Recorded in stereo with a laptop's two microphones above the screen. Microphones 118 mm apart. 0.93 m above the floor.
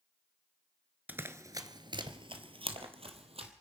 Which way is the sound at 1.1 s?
15° right (ahead or behind).